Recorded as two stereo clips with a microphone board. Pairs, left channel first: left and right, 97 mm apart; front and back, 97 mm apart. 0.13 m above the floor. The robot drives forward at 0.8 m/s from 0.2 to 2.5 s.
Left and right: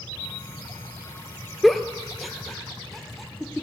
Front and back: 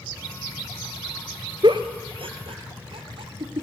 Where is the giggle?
Straight behind, 0.6 m.